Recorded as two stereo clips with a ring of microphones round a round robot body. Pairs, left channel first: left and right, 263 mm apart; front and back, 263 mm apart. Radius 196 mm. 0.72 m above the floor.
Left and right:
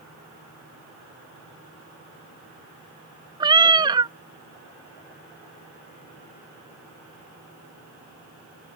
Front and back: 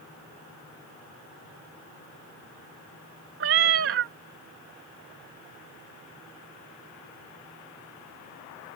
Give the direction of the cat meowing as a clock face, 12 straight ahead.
5 o'clock.